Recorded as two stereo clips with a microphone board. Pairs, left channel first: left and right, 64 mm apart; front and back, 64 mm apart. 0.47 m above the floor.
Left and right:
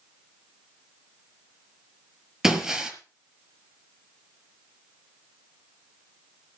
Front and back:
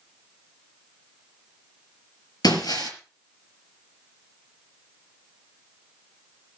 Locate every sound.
2.4 s breaking glass: 10° right, 5 m